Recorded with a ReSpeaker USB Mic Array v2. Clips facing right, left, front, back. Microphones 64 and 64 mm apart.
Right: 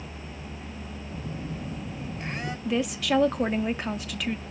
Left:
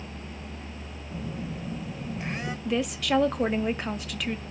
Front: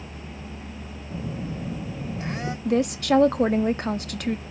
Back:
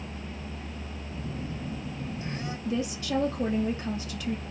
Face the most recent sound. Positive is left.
turn(degrees=0)